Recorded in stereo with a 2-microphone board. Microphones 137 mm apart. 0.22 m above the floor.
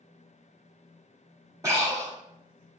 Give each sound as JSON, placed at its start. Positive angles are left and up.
{"t": 1.6, "sound": "breathing", "side_deg": -25, "distance_m": 1.1}